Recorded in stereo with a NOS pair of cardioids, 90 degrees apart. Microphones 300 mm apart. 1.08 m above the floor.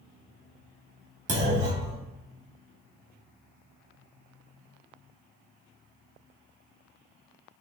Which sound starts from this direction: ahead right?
A clunk, at 1.3 s.